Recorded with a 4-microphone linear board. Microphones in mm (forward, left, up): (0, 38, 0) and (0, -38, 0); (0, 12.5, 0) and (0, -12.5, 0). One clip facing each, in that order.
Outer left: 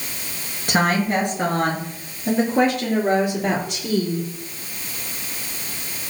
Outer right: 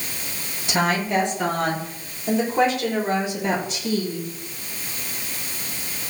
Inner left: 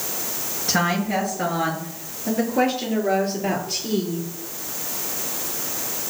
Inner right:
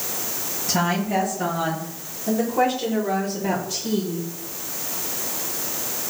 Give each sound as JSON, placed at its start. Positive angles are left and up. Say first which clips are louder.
{"t": 0.7, "sound": "a woman speaking", "louder": "outer left 2 dB, inner left 1 dB", "side_deg": 60, "distance_m": 6.0}